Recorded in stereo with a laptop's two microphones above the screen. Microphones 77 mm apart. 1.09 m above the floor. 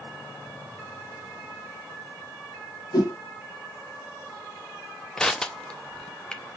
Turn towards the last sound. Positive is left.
turn(degrees=10)  # may be behind; listen again after turning